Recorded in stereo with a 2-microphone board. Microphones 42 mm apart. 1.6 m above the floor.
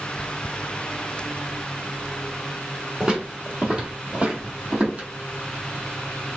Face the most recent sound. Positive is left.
turn(degrees=-35)  # may be behind; listen again after turning